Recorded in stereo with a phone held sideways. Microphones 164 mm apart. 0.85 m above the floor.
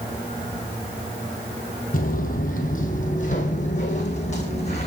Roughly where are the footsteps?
Left.